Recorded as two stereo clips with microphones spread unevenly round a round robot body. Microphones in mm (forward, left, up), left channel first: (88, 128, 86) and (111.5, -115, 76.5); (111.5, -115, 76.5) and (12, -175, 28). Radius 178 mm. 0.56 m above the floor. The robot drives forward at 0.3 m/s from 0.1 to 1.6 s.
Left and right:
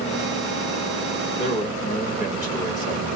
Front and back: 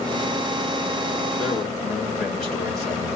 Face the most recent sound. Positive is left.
turn(degrees=145)